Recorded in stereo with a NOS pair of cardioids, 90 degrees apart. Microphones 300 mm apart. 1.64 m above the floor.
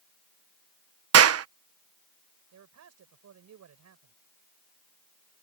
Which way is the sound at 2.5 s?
60° right.